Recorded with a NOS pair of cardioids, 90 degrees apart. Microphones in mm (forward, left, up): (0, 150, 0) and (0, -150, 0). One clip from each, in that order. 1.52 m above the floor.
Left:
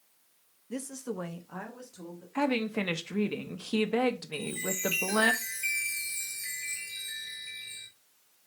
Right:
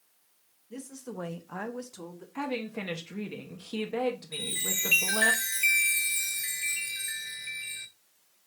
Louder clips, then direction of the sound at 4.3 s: Right 2 dB; 60° right.